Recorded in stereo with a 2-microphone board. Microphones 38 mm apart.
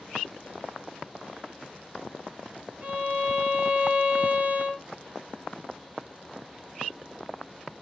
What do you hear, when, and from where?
2.8 s a violin: 35° right (ahead or behind), 0.6 m